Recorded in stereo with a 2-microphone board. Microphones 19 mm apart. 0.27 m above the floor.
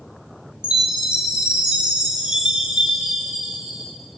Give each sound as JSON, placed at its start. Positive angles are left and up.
{"t": 0.6, "sound": "a chime", "side_deg": -70, "distance_m": 1.2}